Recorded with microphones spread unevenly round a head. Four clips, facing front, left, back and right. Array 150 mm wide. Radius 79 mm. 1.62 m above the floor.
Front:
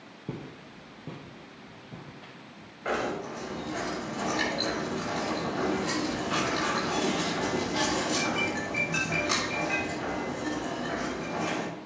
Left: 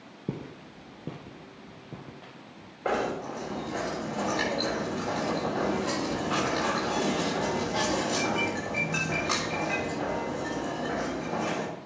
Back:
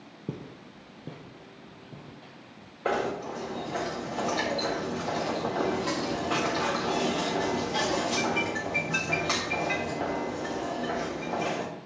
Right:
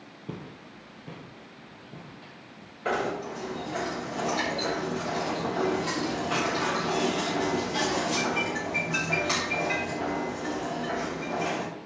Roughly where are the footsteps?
Left.